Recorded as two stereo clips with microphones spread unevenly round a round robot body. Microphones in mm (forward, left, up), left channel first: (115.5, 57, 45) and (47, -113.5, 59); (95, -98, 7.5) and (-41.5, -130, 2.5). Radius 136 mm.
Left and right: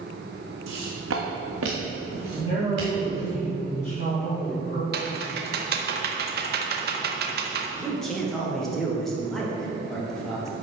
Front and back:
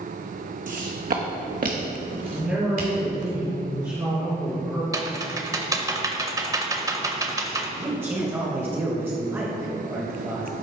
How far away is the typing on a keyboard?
About 0.8 m.